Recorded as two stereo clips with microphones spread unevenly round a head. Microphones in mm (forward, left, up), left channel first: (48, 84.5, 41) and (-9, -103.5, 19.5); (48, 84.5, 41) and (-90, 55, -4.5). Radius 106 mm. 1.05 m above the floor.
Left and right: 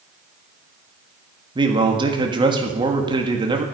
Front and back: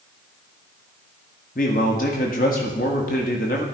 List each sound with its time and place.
1.6 s a man speaking: 40° right, 1.7 m